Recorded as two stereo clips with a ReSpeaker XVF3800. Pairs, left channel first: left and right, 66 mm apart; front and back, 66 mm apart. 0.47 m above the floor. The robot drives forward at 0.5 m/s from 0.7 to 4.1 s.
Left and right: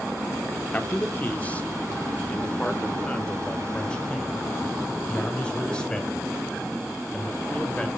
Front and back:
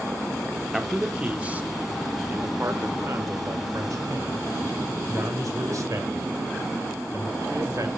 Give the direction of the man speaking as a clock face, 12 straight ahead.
9 o'clock.